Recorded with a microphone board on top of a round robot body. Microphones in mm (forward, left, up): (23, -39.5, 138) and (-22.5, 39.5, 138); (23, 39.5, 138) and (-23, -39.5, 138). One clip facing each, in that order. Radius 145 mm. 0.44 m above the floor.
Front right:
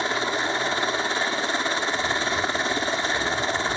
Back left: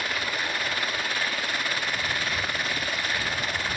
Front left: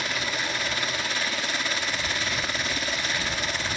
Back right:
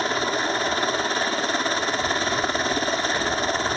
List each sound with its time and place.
0.0 s a helicopter: 105° right